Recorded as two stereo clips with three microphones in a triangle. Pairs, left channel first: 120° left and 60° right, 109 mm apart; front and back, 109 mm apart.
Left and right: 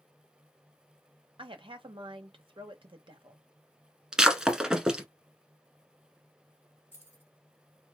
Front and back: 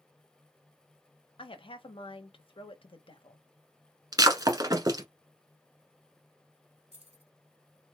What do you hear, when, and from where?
1.4 s a woman speaking: 30° right, 0.9 m
4.1 s breaking glass: 140° right, 0.9 m
6.9 s keys jangling: 170° right, 2 m